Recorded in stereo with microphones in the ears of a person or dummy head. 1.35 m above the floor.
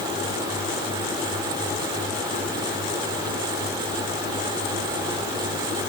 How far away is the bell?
I don't hear a bell.